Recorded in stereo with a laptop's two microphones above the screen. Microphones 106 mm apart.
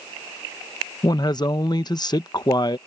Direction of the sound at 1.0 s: 40° left (ahead or behind).